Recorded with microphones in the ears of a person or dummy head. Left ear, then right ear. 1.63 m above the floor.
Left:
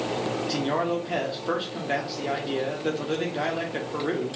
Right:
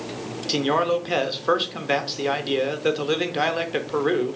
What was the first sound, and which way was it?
A man speaking, 30° right (ahead or behind).